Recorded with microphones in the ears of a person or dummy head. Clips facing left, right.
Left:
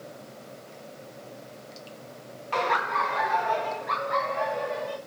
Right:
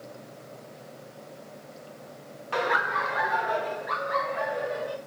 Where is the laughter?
10° right (ahead or behind), 0.9 m; by 5.0 s 5° right (ahead or behind), 3 m.